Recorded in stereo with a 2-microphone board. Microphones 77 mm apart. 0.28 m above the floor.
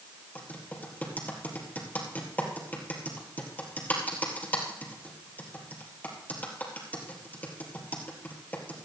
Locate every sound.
0.3 s typing on a keyboard: 20° left (ahead or behind), 3.5 m